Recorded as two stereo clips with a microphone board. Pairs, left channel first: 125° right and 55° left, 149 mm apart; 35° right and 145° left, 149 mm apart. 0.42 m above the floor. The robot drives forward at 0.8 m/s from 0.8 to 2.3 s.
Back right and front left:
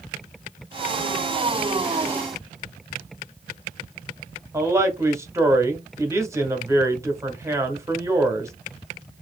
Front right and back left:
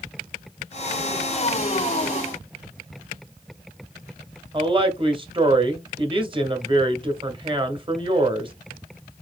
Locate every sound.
4.5 s a woman speaking: 115° left, 1.0 m